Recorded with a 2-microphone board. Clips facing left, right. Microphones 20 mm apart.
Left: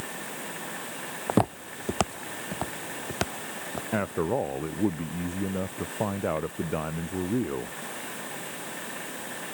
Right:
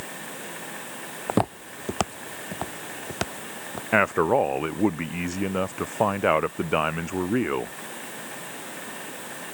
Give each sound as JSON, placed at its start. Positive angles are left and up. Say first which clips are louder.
{"t": 1.3, "sound": "footsteps", "louder": "even", "side_deg": -5}
{"t": 3.9, "sound": "a man speaking", "louder": "right 8 dB", "side_deg": -75}